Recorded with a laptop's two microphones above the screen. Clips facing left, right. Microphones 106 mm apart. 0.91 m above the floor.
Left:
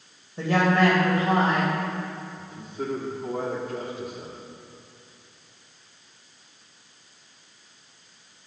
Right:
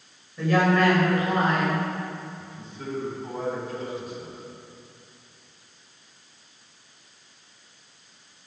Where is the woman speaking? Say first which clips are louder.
Even; 30° left (ahead or behind), 3 m.